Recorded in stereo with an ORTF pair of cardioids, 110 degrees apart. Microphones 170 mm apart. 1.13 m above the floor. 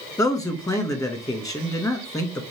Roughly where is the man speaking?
Ahead.